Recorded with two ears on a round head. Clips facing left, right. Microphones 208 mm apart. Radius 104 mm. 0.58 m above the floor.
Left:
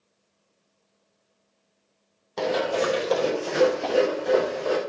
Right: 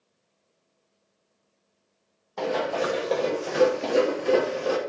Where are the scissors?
No scissors in this recording.